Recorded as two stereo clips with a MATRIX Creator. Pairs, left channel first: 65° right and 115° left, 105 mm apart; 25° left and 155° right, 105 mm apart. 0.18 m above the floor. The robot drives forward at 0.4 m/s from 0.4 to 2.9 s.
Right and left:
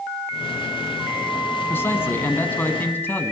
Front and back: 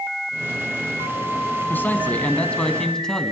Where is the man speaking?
25° right, 1.9 m; by 3.3 s 50° right, 1.7 m.